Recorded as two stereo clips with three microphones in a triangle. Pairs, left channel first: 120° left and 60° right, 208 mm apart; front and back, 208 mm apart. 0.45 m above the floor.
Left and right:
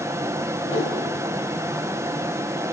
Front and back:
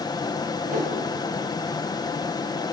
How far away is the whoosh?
About 5 m.